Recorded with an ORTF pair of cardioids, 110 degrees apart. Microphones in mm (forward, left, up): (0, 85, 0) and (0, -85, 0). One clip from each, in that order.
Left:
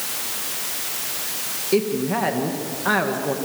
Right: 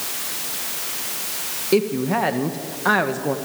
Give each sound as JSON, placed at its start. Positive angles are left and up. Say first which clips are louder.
{"t": 1.7, "sound": "a woman speaking", "louder": "right 2 dB", "azimuth_deg": -30, "distance_m": 1.8}